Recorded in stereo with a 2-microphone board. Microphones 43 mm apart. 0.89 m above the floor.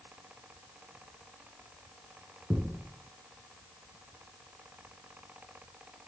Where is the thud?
25° right (ahead or behind), 1.5 m.